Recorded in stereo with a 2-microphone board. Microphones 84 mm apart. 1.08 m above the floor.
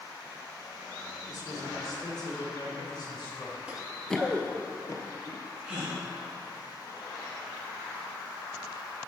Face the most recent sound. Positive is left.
turn(degrees=-10)  # may be behind; listen again after turning